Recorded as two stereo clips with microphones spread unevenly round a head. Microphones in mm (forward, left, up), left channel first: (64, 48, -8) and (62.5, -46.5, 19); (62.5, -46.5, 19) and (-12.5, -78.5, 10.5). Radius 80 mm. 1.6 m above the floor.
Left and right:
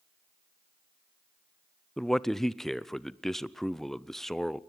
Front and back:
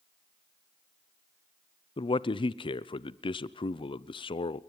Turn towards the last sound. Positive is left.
turn(degrees=5)